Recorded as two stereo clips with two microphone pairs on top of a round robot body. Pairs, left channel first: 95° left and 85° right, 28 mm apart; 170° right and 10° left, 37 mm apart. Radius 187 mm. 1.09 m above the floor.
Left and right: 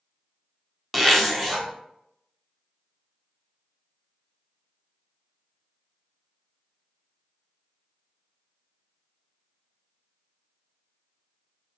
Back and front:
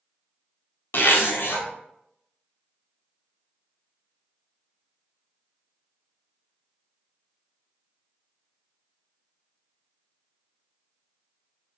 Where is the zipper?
Straight behind, 1.0 m.